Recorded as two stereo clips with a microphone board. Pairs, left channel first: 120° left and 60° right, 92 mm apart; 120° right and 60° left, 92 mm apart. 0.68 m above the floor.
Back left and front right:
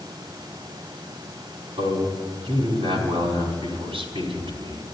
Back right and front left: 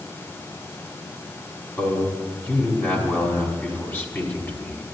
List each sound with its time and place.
1.8 s a man speaking: 50° right, 4 m